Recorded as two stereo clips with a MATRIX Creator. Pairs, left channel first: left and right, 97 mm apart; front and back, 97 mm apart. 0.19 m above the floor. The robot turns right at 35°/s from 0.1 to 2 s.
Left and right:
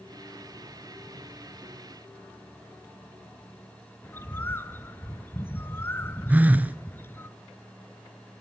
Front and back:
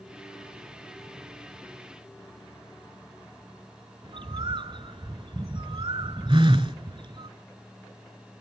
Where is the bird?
155° left, 0.6 m.